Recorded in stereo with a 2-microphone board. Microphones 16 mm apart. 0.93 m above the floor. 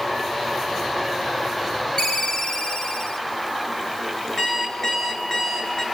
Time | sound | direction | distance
2.0 | a ringtone | 50° left (ahead or behind) | 2.5 m
4.4 | an alarm clock | 50° left (ahead or behind) | 8.5 m